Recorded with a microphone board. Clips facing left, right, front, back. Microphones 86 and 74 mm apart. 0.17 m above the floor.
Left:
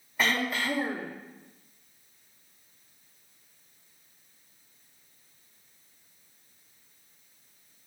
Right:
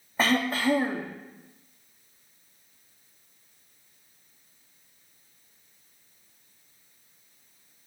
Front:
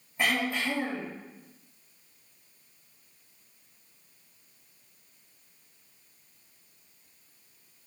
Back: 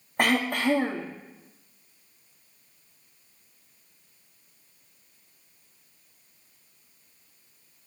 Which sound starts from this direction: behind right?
Throat clearing, at 0.2 s.